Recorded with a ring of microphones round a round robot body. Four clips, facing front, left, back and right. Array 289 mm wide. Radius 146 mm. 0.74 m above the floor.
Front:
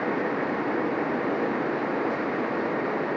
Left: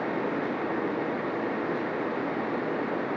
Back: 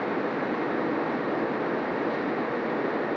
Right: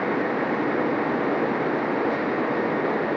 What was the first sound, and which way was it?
Only background noise.